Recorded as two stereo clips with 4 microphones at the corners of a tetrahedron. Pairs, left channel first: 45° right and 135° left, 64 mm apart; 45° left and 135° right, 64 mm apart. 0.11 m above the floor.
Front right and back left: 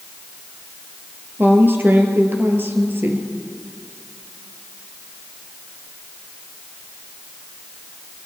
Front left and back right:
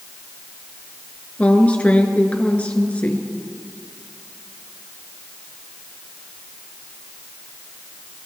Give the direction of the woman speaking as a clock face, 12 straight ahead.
9 o'clock.